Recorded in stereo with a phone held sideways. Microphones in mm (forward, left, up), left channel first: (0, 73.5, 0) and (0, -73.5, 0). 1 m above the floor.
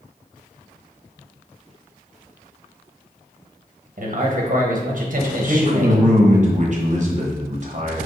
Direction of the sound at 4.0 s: 55° right (ahead or behind).